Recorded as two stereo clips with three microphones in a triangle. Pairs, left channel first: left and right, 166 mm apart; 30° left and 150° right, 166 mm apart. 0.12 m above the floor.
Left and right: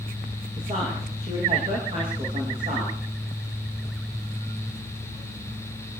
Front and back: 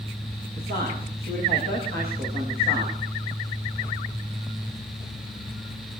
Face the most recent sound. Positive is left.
turn(degrees=-150)